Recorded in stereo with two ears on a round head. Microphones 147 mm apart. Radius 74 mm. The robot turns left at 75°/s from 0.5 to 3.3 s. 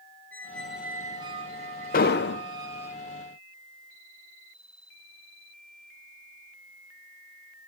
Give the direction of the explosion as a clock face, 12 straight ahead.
8 o'clock.